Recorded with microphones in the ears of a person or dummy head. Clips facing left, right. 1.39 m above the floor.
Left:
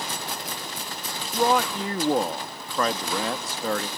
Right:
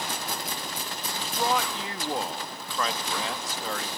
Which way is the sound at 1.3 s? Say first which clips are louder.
Left 6 dB; 45° left (ahead or behind).